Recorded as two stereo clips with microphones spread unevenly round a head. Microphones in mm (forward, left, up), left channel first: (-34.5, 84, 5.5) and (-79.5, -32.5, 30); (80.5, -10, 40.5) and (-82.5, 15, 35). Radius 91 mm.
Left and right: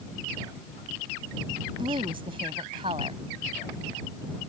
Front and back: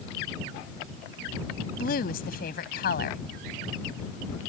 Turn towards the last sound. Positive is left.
turn(degrees=-45)